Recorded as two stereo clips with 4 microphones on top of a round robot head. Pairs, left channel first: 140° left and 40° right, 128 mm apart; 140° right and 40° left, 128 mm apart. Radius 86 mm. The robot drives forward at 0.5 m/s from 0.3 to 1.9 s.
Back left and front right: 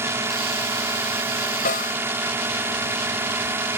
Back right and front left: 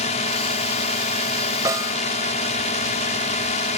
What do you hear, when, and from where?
0.0 s a drone: 110° right
1.6 s a snare drum: 110° left